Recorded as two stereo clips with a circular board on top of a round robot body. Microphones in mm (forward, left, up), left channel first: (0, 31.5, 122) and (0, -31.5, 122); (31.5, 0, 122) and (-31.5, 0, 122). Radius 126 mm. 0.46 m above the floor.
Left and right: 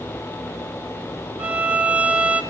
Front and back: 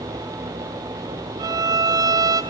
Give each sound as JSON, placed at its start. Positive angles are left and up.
{"t": 1.4, "sound": "a violin", "azimuth_deg": -160, "distance_m": 0.7}